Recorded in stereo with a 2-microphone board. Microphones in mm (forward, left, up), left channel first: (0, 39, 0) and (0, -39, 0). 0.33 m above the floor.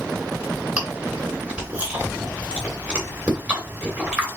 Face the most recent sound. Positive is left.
turn(degrees=-15)  # may be behind; listen again after turning